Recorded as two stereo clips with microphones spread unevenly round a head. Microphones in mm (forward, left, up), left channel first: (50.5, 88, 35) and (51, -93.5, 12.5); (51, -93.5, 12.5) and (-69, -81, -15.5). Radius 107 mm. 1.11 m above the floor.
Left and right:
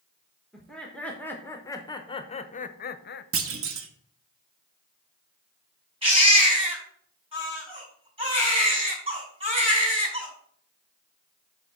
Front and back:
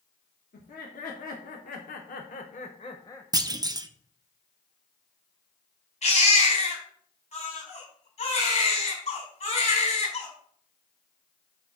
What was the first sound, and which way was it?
Laughter, straight ahead.